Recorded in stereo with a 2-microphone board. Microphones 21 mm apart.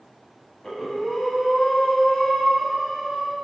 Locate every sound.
0.6 s breathing: 30° left (ahead or behind), 0.8 m